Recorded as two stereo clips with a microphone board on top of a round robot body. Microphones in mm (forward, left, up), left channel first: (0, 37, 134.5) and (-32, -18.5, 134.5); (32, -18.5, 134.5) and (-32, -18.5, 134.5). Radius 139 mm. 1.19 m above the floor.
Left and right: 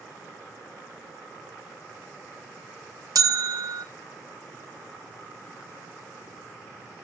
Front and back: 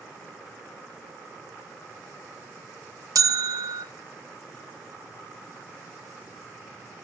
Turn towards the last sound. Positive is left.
turn(degrees=-150)